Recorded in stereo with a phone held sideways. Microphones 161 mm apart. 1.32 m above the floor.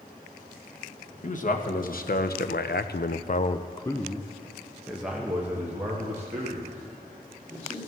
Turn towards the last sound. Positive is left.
turn(degrees=-20)  # may be behind; listen again after turning